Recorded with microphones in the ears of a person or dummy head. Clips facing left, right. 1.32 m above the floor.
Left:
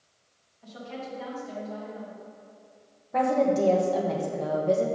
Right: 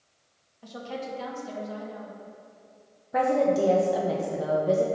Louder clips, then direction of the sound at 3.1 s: Even; 10° right (ahead or behind).